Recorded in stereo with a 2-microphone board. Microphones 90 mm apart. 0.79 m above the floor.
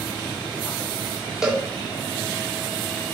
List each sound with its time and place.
1.4 s a cowbell: 5° right (ahead or behind), 2 m